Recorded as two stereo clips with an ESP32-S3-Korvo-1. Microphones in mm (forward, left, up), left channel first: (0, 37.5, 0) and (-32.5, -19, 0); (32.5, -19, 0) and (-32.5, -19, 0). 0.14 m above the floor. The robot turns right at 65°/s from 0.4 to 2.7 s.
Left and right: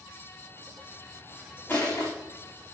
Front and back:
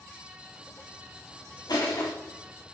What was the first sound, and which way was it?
Crushing, straight ahead.